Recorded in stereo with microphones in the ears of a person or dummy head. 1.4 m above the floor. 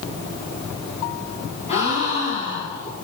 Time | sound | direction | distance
1.7 | a gasp | 35° left (ahead or behind) | 6.5 m